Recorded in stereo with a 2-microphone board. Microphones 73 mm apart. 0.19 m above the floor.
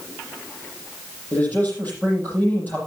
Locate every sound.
1.3 s a man speaking: 25° left (ahead or behind), 8 m